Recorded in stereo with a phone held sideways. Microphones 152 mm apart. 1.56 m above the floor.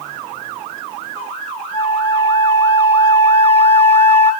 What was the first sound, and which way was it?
A flute, 35° left (ahead or behind).